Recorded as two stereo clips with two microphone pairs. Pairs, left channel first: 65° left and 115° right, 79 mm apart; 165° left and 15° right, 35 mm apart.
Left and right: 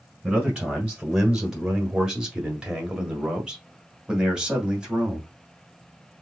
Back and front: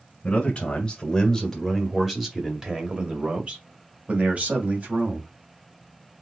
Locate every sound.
0.2 s a man speaking: 170° left, 1.6 m; by 5.3 s 35° right, 2.5 m